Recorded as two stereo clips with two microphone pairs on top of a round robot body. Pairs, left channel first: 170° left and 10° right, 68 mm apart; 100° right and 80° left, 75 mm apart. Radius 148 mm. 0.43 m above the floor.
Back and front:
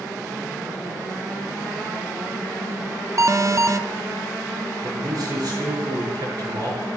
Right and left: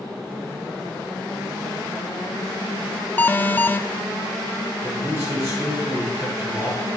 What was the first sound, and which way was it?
An alarm, 35° right.